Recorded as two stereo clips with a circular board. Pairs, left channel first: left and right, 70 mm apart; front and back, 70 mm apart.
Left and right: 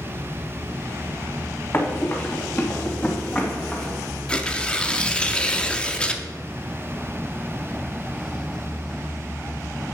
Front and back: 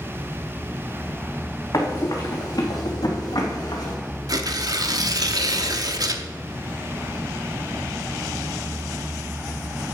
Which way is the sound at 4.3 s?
165° left.